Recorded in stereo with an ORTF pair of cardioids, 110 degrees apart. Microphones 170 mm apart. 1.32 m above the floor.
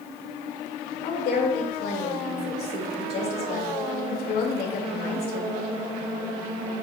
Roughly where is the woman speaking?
Ahead left.